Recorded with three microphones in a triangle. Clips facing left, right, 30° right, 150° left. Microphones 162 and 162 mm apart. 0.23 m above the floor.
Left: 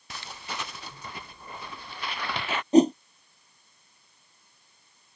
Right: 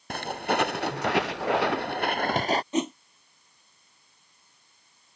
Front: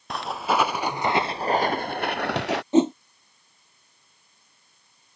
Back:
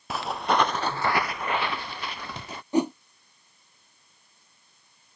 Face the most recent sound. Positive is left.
turn(degrees=35)